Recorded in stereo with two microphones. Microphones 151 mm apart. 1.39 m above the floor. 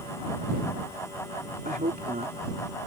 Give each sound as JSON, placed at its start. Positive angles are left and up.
{"t": 1.6, "sound": "a woman speaking", "side_deg": -70}